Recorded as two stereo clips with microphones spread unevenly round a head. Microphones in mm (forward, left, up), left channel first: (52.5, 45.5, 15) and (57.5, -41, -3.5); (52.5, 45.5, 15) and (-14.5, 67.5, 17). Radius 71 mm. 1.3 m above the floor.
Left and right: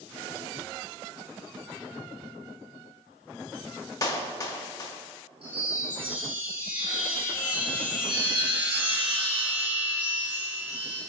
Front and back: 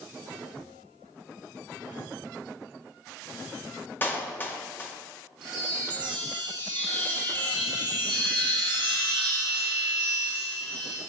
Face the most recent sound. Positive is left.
turn(degrees=-170)